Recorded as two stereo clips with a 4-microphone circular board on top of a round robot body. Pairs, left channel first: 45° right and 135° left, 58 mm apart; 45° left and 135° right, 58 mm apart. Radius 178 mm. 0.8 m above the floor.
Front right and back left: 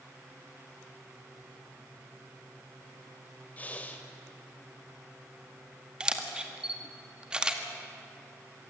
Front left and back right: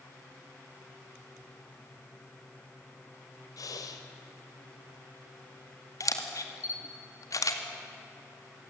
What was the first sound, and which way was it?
Breathing, 20° left.